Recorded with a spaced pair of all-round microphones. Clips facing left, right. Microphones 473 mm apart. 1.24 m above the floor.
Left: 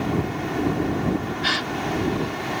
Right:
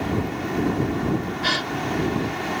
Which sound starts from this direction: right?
A gasp, at 1.4 s.